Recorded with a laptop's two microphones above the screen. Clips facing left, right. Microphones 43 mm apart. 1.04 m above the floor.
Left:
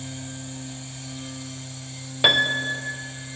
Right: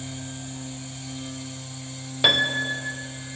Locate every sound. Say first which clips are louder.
0.0 s a machine running: even; 10° right (ahead or behind), 5 m
2.2 s a piano: left 1 dB; 10° left (ahead or behind), 0.6 m